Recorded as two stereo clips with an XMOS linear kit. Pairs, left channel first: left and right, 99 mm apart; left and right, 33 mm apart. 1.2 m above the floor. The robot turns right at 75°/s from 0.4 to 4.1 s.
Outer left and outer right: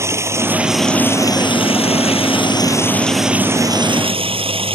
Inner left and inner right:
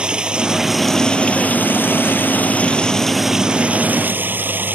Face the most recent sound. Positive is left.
turn(degrees=-110)